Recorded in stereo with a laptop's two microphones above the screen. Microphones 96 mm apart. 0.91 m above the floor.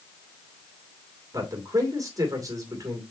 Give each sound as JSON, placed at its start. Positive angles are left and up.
{"t": 1.3, "sound": "a man speaking", "side_deg": -35, "distance_m": 2.5}